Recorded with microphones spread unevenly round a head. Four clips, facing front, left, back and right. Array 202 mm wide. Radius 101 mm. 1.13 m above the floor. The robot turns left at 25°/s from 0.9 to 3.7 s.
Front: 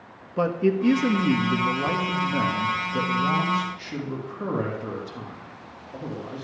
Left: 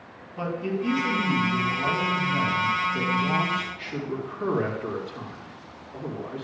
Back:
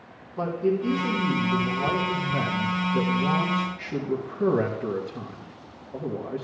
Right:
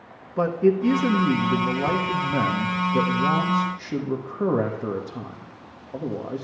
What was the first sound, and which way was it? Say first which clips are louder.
A man speaking: right 9 dB, front 3 dB; 40° right.